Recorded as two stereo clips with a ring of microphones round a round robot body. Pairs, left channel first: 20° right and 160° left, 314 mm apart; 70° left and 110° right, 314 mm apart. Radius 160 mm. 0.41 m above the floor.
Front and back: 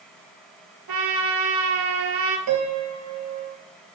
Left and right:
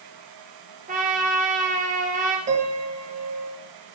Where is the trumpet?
Straight behind, 2.0 m.